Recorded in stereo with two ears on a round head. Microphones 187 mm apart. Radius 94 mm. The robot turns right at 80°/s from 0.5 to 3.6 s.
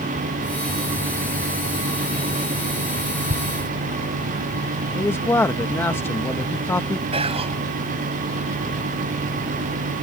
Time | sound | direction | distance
3.3 | tearing paper | 35° right (ahead or behind) | ?
5.0 | a man speaking | 10° left (ahead or behind) | ?
7.1 | whispering | 30° right (ahead or behind) | ?